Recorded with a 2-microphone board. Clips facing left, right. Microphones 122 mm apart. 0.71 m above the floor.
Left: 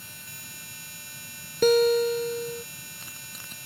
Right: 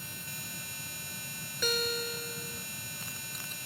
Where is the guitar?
50° left (ahead or behind).